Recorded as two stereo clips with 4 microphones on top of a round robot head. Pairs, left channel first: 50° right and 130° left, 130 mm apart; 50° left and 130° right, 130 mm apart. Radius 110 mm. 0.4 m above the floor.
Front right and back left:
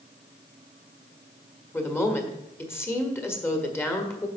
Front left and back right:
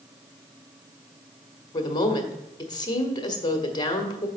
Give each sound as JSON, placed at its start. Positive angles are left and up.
{"t": 1.7, "sound": "a woman speaking", "azimuth_deg": 15, "distance_m": 1.4}